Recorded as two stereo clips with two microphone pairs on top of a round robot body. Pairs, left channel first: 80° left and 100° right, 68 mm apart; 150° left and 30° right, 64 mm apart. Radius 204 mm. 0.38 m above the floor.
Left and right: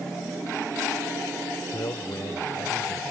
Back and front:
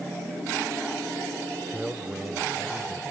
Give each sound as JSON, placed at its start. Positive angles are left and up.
{"t": 1.7, "sound": "a man speaking", "azimuth_deg": 50}